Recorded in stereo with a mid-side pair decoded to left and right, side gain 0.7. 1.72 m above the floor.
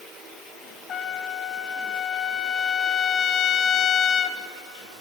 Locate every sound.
0.9 s a trumpet: 40° left, 1.5 m